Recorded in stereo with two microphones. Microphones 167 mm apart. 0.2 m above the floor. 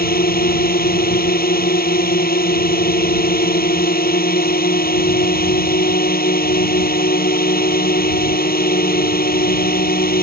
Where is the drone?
65° left (ahead or behind).